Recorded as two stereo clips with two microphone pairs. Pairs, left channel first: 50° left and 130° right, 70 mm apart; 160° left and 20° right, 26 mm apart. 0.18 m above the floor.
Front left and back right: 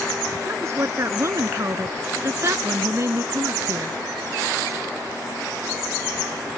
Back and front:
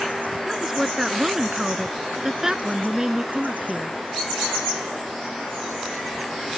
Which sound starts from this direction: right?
A woman speaking, at 0.5 s.